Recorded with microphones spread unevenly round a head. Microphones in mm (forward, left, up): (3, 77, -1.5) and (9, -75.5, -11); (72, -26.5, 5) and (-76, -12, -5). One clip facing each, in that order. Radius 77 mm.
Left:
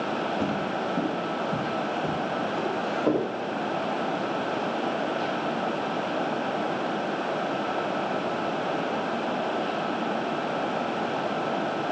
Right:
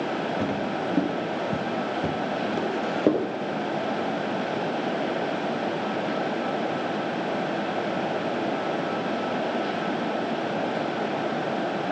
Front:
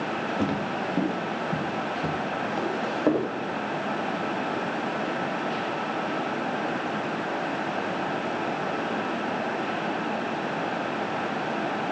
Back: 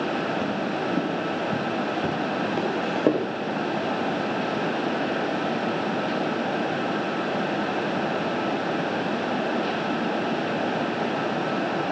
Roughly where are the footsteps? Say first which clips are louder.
Right 1 dB, back 1 dB; ahead.